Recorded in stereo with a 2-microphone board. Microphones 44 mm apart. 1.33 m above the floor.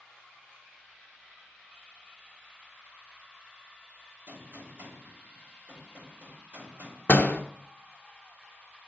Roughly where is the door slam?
Left.